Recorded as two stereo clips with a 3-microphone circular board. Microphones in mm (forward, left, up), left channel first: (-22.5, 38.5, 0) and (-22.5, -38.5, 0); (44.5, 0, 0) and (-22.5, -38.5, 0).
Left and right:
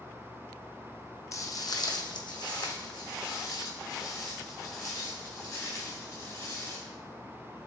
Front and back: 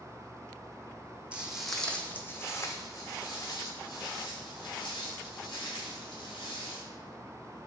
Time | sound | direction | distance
1.3 | footsteps | 135° left | 0.6 m